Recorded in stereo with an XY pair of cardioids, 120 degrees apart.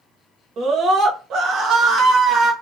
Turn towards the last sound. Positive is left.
turn(degrees=-65)